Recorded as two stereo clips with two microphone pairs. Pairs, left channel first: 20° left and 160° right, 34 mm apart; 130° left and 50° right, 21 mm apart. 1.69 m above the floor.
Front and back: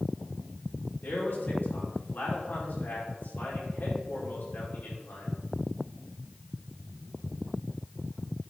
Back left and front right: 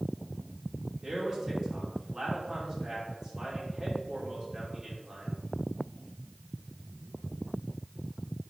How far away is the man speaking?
About 5.5 m.